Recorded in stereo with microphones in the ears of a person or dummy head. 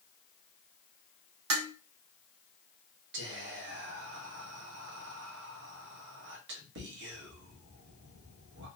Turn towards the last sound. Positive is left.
turn(degrees=-60)  # may be behind; listen again after turning